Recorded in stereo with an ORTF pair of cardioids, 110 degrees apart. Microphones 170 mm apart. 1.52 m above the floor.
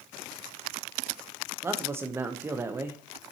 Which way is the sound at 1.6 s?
15° right.